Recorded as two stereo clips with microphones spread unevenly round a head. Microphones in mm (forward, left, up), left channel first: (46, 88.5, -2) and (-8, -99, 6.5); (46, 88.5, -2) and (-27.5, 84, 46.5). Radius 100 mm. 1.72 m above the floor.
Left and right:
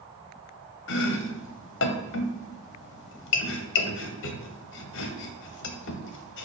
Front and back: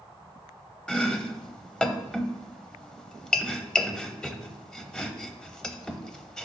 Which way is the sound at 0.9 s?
100° left.